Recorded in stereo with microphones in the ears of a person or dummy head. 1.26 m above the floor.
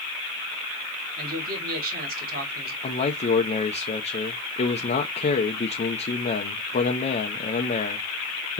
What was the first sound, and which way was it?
A man speaking, 45° right (ahead or behind).